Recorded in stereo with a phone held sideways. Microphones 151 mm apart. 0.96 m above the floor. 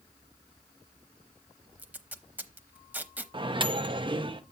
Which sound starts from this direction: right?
A microwave, at 3.3 s.